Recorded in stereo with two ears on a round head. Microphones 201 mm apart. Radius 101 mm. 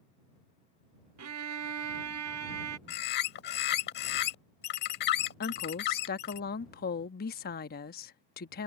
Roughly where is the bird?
Left.